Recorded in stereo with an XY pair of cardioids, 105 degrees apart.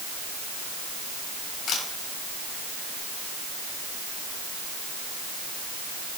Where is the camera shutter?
65° left, 6 m.